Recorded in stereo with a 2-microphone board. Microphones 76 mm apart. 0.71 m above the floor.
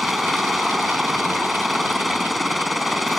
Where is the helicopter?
Centre (ahead or behind).